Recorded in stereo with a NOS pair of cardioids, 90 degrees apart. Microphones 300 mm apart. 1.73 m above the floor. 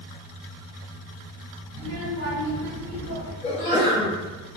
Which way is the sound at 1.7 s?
50° right.